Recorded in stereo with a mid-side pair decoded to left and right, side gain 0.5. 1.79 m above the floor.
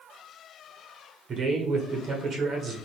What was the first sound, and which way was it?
A man speaking, 50° right.